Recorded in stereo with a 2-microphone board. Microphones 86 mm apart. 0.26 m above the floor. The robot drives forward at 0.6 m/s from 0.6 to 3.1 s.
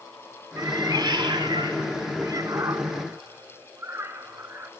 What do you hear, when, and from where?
0.6 s a cat meowing: 40° right (ahead or behind), 0.9 m; by 4.7 s 30° right (ahead or behind), 1.2 m